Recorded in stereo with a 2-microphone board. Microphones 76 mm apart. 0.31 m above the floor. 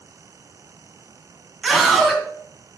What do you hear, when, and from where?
1.6 s a scream: centre (ahead or behind), 3 m